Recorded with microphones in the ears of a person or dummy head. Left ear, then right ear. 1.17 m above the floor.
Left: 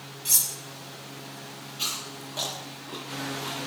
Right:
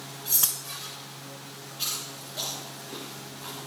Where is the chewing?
25° left (ahead or behind), 3 m.